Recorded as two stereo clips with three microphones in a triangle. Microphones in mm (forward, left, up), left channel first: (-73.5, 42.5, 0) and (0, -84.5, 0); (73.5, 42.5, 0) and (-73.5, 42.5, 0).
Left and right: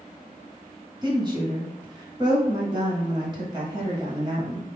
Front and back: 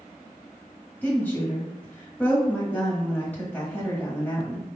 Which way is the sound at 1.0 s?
65° right.